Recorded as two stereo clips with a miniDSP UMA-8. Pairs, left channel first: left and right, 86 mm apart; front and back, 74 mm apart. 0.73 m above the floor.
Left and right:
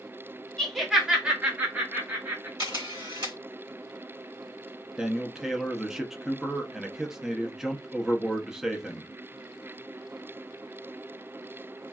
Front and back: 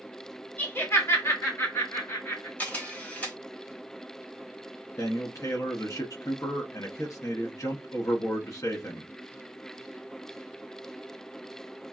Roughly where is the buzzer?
I don't hear a buzzer.